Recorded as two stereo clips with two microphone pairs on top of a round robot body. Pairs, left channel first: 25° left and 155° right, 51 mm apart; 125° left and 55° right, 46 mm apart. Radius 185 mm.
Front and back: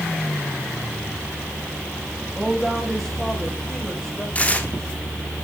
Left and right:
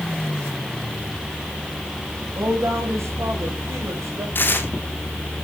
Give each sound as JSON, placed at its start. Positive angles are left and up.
{"t": 2.4, "sound": "a woman speaking", "azimuth_deg": -65, "distance_m": 5.0}
{"t": 4.3, "sound": "tearing paper", "azimuth_deg": 85, "distance_m": 2.0}